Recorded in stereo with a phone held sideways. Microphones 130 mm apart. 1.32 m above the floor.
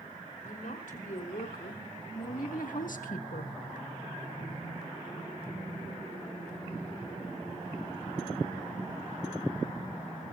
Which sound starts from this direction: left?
A woman speaking, at 0.4 s.